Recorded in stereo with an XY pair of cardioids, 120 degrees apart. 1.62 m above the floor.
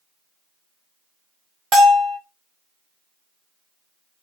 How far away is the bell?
About 1.5 m.